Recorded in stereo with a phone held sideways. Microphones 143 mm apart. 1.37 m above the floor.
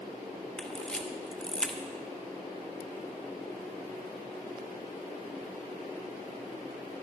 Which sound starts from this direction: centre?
A camera shutter, at 0.6 s.